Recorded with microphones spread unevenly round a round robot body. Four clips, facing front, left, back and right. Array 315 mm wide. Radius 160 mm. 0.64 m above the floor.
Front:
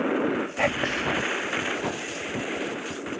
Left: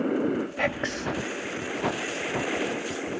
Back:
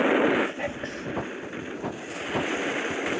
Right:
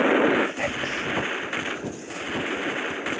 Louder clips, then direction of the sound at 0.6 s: Even, front 6 dB; 5° left.